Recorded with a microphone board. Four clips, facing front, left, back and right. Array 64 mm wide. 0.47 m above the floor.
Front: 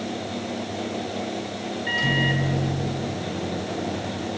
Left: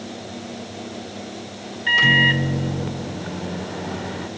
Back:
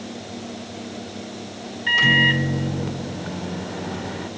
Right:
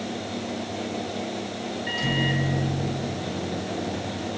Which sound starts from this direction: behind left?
A microwave, at 1.9 s.